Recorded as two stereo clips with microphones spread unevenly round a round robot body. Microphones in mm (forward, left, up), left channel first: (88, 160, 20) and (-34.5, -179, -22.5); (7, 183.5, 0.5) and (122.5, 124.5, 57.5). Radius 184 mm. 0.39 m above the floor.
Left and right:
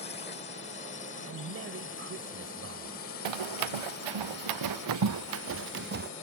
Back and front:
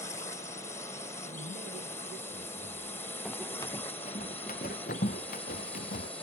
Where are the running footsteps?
110° right; by 6.1 s 175° right.